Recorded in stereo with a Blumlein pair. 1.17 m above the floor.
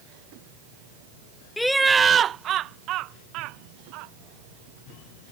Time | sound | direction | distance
1.6 | laughter | 10° left | ?